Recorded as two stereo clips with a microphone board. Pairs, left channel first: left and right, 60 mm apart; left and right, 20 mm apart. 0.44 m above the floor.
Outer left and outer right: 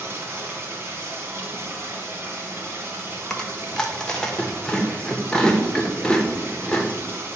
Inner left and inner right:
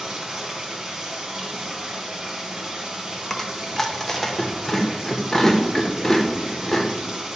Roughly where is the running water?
Right.